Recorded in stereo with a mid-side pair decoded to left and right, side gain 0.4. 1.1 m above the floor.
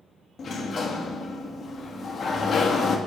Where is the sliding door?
45° left, 1.0 m.